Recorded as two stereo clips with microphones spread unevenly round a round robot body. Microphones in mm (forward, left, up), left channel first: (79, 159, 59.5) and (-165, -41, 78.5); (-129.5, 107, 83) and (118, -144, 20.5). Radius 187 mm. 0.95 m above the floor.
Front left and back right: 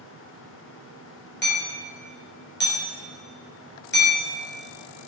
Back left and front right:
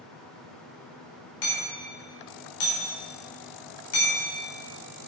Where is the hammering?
95° left, 4 m.